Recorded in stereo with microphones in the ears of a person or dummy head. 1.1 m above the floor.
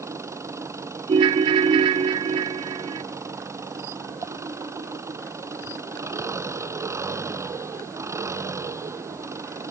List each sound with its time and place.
0.0 s an engine running: 20° right (ahead or behind)
1.1 s a ringtone: 25° right (ahead or behind)